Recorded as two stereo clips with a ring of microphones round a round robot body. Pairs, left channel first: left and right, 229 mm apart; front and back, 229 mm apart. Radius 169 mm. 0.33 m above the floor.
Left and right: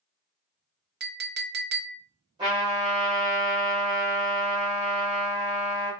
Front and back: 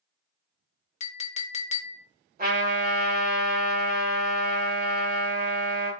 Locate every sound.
1.0 s a clink: 55° right, 0.7 m
2.4 s a trumpet: 150° right, 2.0 m